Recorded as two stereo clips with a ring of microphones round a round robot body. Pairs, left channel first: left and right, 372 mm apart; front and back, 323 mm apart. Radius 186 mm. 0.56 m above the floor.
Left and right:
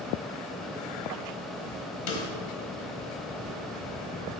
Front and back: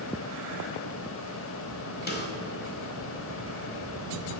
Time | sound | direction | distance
2.1 | a snare drum | 60° left | 1.2 m